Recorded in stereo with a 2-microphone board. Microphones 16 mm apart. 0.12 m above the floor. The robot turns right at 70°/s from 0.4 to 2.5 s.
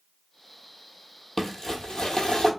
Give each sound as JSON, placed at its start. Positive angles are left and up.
{"t": 1.4, "sound": "crumpling", "azimuth_deg": 25, "distance_m": 0.8}